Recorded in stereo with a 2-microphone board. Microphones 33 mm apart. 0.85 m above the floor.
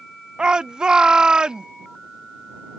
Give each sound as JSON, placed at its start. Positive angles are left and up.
{"t": 0.4, "sound": "a shout", "side_deg": -25}